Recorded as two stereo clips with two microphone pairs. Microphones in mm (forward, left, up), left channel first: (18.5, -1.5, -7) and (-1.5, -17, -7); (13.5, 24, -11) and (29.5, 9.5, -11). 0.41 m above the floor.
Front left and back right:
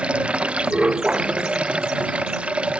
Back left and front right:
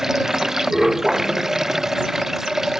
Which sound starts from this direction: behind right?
Running water, at 0.0 s.